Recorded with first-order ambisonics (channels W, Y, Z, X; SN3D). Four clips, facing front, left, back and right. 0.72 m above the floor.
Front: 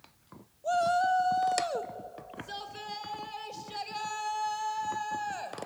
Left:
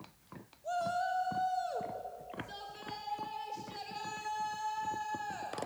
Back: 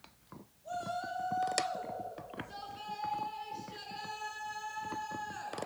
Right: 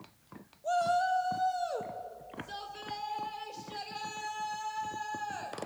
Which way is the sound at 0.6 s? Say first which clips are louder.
Right 6 dB, front 12 dB; 25° right.